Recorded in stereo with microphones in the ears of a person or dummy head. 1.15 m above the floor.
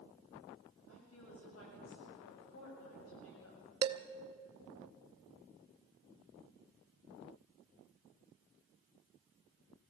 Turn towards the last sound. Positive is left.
turn(degrees=-30)  # may be behind; listen again after turning